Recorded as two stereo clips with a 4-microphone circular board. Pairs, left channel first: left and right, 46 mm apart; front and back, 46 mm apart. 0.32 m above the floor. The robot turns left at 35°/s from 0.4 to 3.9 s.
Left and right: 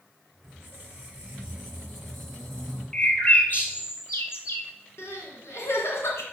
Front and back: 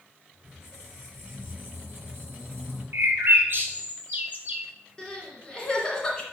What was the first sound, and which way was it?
A squeak, 120° right.